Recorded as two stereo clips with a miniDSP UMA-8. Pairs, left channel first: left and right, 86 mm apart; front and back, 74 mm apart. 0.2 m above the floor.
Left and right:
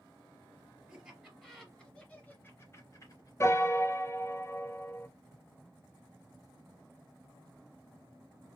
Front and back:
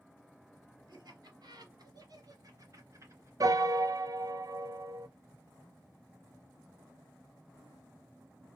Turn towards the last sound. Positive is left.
turn(degrees=145)